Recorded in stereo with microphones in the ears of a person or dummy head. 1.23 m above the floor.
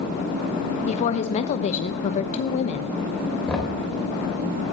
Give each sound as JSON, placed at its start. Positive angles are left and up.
{"t": 0.9, "sound": "a woman speaking", "side_deg": 40, "distance_m": 0.9}
{"t": 3.5, "sound": "knocking", "side_deg": 10, "distance_m": 4.0}